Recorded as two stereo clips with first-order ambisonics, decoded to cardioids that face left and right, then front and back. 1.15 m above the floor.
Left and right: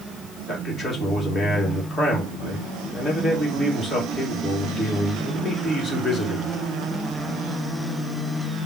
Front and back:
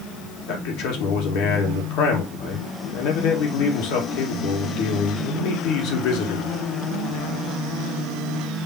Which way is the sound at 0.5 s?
15° left.